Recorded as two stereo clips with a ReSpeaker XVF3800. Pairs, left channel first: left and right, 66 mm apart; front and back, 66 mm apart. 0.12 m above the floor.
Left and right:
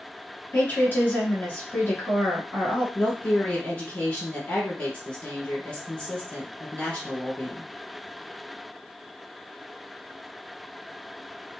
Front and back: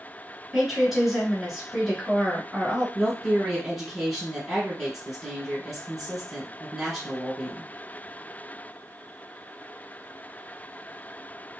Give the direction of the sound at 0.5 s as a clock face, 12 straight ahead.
9 o'clock.